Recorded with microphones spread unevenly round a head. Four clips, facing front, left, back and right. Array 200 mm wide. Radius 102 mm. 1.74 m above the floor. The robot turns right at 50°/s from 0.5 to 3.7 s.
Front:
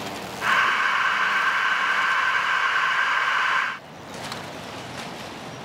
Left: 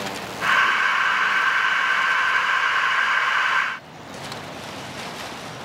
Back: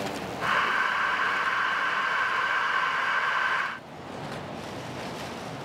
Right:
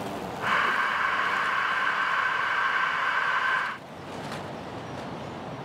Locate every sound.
Only background noise.